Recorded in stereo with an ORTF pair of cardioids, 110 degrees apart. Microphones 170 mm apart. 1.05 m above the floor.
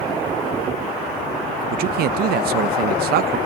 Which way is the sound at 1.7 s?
65° right.